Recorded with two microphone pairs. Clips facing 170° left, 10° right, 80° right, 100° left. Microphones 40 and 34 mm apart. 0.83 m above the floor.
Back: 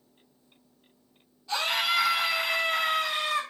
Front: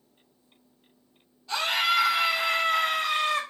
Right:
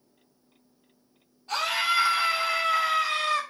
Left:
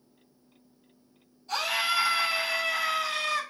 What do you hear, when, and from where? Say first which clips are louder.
1.5 s a scream: front 2 dB, right 2 dB; 95° right, 1.4 m; by 3.4 s 40° right, 1.6 m